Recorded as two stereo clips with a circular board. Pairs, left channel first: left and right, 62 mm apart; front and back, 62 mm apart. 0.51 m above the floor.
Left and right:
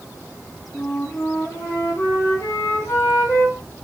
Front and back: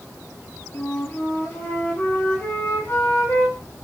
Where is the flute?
55° left, 1.1 m.